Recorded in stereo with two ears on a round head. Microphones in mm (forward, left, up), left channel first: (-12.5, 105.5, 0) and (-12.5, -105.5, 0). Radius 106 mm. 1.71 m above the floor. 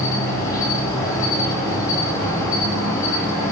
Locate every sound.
0.0 s an insect: 15° left (ahead or behind), 0.8 m